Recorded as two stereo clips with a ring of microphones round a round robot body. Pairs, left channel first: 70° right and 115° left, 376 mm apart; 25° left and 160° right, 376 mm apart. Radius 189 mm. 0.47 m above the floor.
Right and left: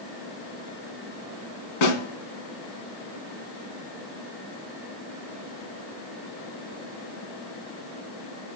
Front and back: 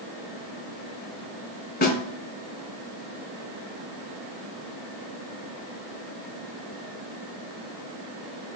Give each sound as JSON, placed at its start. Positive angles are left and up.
{"t": 1.8, "sound": "a snare drum", "azimuth_deg": -45, "distance_m": 2.0}